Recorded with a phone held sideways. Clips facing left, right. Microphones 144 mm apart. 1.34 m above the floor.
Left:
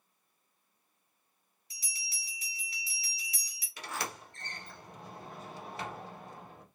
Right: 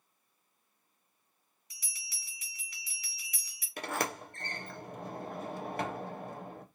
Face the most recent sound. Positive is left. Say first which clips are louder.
# right 5 dB
turn(degrees=-55)  # may be behind; listen again after turning